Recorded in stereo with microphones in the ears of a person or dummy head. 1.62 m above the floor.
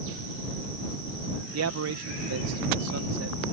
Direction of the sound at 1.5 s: 85° right.